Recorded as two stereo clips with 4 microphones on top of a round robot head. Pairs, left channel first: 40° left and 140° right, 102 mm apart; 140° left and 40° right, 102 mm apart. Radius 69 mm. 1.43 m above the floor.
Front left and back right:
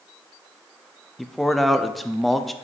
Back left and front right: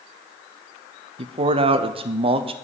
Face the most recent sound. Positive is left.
turn(degrees=-50)